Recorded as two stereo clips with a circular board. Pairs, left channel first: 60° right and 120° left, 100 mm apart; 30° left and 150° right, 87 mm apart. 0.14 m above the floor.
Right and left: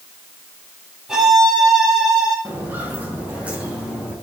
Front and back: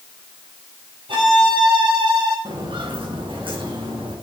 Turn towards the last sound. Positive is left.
turn(degrees=-160)